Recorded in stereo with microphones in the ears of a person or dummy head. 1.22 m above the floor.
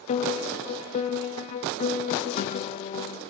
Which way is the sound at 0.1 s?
35° left (ahead or behind).